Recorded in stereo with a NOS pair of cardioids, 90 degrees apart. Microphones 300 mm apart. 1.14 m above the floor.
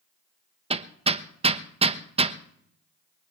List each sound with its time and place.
0.7 s hammering: 20° right, 1.1 m